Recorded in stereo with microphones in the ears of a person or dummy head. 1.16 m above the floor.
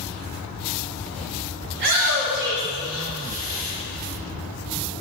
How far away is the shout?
About 0.8 m.